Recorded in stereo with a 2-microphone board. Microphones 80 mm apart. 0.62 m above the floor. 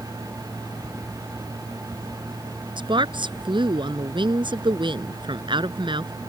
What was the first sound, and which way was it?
A woman speaking, 80° right.